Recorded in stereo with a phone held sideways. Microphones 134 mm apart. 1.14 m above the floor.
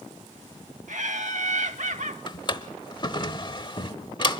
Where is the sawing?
No sawing in this recording.